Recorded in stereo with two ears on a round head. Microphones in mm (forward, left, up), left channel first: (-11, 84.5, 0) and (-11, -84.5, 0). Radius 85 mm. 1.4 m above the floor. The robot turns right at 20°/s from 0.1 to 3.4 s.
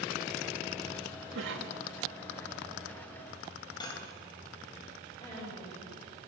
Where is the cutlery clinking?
20° left (ahead or behind), 4 m.